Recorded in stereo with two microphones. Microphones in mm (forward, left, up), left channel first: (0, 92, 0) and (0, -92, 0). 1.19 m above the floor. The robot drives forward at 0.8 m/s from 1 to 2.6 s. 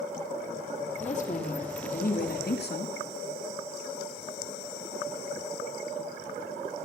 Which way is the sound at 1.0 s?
40° left (ahead or behind).